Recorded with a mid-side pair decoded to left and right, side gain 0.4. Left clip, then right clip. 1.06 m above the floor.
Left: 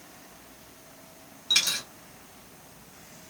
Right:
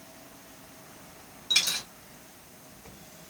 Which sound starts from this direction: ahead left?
A dropped coin, at 1.5 s.